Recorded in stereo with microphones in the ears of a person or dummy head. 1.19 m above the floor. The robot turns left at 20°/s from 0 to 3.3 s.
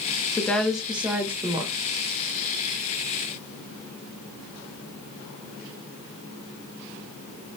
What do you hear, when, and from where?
0.4 s a woman speaking: 10° left (ahead or behind), 0.6 m; by 1.7 s 20° right (ahead or behind), 0.6 m